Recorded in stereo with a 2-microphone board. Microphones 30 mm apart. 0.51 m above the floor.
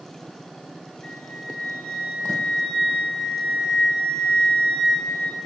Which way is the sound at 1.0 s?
55° left (ahead or behind).